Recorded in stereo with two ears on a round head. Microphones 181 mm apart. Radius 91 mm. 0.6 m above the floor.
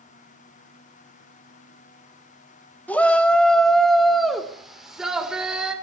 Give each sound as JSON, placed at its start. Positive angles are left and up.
{"t": 2.9, "sound": "a shout", "side_deg": 5, "distance_m": 1.4}